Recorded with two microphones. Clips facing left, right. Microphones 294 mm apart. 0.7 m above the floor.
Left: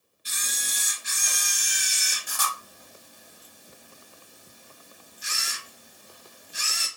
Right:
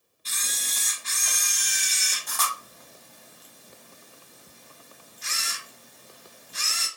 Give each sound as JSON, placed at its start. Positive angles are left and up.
{"t": 0.2, "sound": "a camera shutter", "side_deg": 15, "distance_m": 0.9}